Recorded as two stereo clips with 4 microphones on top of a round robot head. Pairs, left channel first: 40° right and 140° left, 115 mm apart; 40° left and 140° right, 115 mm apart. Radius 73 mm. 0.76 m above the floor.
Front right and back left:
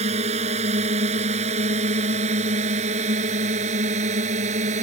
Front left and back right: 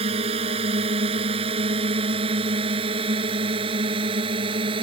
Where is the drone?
175° left; by 4.8 s 170° left.